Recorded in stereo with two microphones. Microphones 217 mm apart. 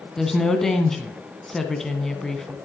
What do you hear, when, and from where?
0.2 s a woman speaking: centre (ahead or behind), 1.2 m